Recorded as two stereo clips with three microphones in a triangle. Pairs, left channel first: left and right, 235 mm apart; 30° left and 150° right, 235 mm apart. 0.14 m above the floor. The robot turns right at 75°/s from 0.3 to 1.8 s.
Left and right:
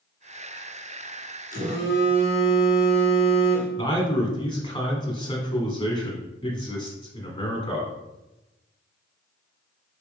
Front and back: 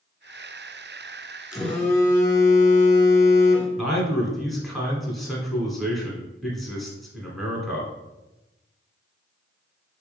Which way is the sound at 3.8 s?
120° left.